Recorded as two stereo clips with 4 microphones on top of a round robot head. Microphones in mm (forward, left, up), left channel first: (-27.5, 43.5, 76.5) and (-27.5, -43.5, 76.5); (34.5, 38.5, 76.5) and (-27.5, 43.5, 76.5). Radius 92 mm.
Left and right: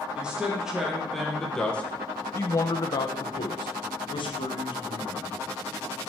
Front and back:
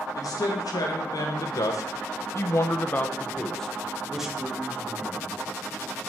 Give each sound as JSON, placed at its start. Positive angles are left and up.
{"t": 0.1, "sound": "a man speaking", "azimuth_deg": -10, "distance_m": 2.5}